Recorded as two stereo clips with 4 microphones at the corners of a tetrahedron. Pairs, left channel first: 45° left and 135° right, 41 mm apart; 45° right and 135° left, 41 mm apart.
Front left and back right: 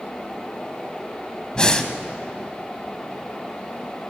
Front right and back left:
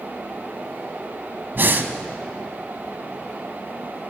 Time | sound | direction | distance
1.6 | breathing | 110° left | 0.8 m